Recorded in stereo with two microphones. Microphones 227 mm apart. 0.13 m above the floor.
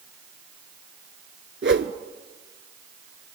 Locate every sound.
1.6 s a whoosh: 60° right (ahead or behind), 0.8 m